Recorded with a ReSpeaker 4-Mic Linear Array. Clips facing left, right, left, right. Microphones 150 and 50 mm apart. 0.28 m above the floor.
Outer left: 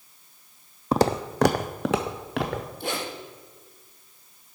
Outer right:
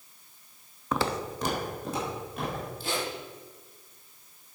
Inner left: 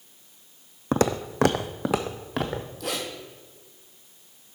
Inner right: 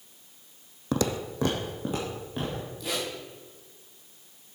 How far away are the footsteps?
About 0.5 m.